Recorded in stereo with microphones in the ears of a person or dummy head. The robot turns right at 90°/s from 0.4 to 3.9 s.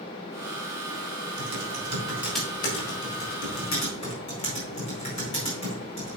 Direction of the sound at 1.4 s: 80° right.